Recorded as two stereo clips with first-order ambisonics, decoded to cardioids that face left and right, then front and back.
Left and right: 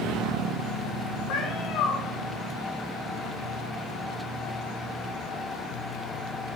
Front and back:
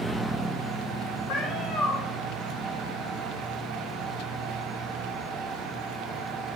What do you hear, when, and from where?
1.3 s a cat meowing: 55° left, 4 m